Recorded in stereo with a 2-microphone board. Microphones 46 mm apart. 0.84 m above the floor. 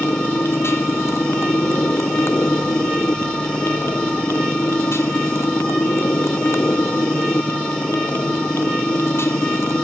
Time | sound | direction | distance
0.0 | a motorcycle | 90° left | ?